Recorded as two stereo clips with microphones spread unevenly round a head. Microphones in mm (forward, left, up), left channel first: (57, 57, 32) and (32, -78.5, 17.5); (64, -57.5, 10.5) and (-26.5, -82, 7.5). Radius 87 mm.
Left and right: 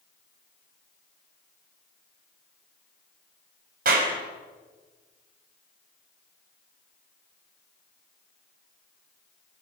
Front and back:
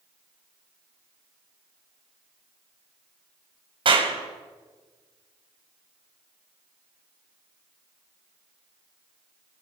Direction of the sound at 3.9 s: 140° right.